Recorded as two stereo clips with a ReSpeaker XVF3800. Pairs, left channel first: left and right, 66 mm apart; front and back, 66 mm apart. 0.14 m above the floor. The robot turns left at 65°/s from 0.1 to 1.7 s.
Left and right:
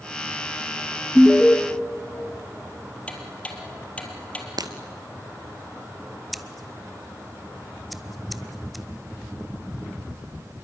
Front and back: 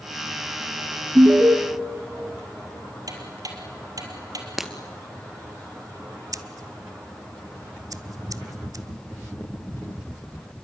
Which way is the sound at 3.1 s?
160° left.